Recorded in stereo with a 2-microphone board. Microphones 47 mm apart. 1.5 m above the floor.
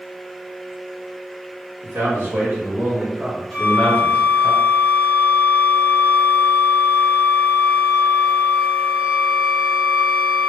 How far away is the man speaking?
About 1.2 m.